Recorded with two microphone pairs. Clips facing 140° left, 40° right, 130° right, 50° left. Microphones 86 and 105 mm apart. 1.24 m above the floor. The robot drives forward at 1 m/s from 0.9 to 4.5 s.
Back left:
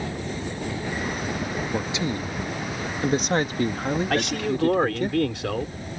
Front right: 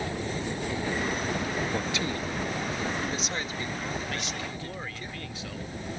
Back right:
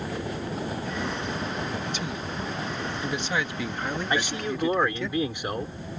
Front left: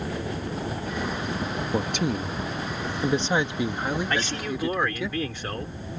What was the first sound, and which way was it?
A man speaking, 70° left.